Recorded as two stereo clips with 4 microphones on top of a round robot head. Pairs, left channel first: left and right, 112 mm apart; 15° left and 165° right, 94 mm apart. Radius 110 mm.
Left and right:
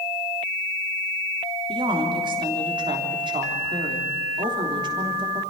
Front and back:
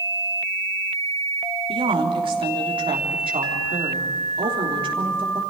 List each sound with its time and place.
1.7 s a woman speaking: 140° right, 3.5 m